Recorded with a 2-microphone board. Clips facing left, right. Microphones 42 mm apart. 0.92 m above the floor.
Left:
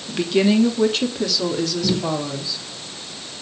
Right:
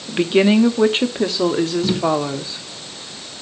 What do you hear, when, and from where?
0.1 s a woman speaking: 25° right (ahead or behind), 1.9 m; by 2.6 s 40° right (ahead or behind), 3 m
1.8 s tapping: 15° right (ahead or behind), 1.7 m